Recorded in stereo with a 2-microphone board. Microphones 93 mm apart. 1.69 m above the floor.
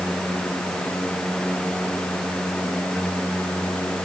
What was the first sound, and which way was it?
Only background noise.